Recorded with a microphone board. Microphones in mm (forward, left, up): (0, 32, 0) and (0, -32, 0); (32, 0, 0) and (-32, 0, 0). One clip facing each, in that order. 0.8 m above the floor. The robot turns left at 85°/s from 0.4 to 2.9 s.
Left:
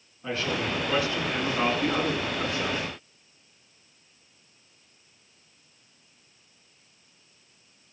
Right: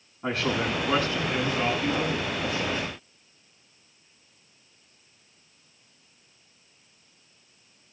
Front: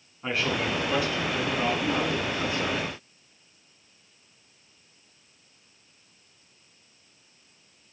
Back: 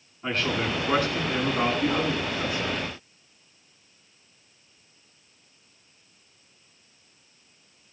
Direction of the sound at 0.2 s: 85° right.